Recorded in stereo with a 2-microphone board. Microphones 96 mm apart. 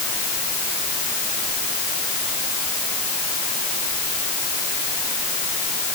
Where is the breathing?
No breathing in this recording.